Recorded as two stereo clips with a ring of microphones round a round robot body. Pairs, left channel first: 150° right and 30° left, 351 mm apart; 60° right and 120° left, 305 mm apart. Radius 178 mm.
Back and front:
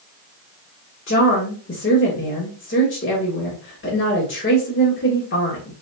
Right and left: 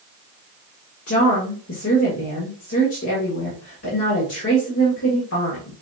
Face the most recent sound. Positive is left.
turn(degrees=-100)